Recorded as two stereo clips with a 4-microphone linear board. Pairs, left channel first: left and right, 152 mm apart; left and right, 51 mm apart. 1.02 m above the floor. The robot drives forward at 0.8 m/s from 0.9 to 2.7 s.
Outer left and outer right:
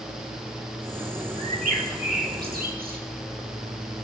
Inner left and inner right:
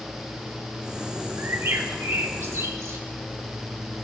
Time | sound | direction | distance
1.4 | a bird | 55° right (ahead or behind) | 1.7 m